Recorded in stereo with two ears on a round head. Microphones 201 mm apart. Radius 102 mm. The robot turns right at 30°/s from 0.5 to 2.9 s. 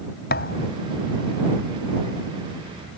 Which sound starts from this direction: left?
A thud, at 0.3 s.